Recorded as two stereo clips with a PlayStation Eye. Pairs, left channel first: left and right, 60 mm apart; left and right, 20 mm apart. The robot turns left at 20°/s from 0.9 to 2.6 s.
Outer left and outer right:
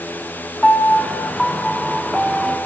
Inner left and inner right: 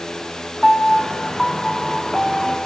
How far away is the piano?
About 0.5 m.